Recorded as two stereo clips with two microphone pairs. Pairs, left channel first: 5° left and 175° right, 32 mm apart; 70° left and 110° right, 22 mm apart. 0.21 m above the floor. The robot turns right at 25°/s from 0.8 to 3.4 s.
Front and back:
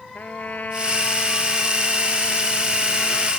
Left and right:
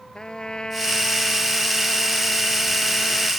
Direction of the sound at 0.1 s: 25° left.